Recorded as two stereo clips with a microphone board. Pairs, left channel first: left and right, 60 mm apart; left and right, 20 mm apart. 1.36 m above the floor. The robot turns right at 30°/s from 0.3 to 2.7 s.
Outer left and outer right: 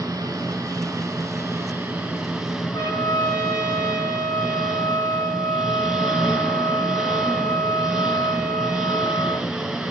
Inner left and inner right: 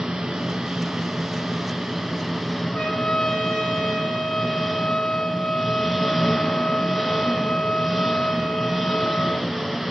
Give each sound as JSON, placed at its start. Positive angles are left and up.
{"t": 0.0, "sound": "an engine running", "azimuth_deg": -75, "distance_m": 4.0}
{"t": 2.7, "sound": "a trumpet", "side_deg": 85, "distance_m": 2.5}